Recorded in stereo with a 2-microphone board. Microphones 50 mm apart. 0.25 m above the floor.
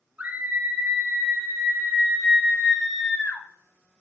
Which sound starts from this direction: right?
A scream, at 0.2 s.